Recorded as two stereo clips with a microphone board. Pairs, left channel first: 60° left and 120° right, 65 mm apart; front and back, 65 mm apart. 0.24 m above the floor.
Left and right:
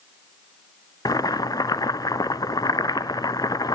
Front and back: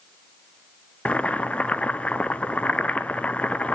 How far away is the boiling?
About 0.7 m.